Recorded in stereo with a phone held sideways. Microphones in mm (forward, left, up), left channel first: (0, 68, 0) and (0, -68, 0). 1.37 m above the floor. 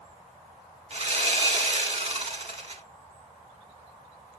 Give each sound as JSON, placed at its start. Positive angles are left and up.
{"t": 0.9, "sound": "sawing", "side_deg": -45, "distance_m": 1.3}